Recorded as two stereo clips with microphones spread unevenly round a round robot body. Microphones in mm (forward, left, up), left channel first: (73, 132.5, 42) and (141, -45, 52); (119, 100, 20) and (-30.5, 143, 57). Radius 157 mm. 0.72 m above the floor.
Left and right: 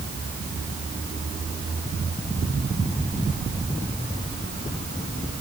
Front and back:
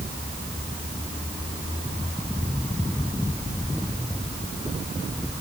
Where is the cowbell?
I don't hear a cowbell.